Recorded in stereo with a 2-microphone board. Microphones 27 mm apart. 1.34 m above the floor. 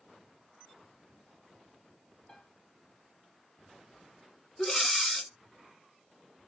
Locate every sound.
2.3 s a piano: 45° left (ahead or behind), 4 m
4.6 s breathing: 15° left (ahead or behind), 1.0 m